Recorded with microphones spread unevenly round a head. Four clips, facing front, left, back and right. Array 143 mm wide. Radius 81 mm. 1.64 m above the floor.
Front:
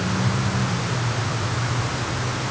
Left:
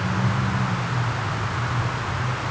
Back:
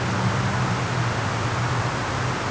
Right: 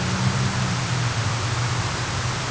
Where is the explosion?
I don't hear an explosion.